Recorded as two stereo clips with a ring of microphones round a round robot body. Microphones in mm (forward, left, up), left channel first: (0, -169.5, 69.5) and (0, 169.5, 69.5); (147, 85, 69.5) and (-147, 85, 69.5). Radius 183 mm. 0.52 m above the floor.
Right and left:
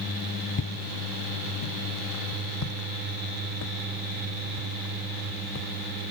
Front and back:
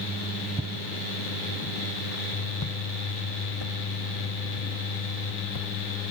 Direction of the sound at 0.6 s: 115° right.